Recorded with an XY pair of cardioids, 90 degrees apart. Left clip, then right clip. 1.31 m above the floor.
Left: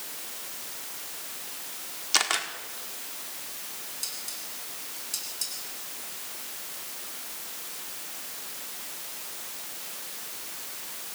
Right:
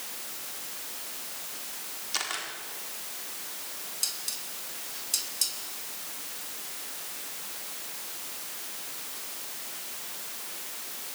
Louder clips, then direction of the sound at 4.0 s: Right 4 dB; 40° right.